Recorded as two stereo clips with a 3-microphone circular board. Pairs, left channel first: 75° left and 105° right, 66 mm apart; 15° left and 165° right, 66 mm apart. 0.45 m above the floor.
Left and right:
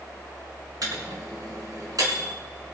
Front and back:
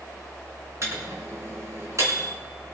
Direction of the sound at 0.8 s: 125° right.